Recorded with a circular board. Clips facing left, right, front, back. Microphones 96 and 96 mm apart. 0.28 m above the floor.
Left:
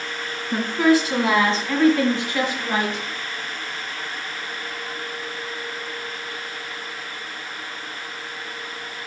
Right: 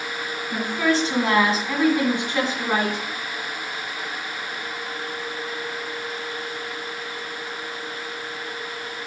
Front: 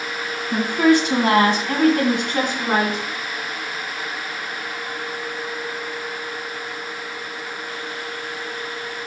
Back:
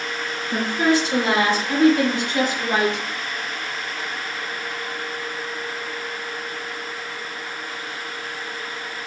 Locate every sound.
0.5 s a woman speaking: 25° left, 2.5 m; by 3.0 s 45° right, 2.5 m